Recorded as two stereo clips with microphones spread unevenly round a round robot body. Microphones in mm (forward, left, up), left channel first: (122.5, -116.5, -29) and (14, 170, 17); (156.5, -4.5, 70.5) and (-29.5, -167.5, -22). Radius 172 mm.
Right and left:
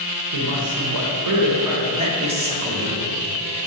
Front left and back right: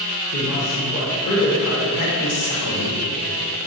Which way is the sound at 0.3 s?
100° left.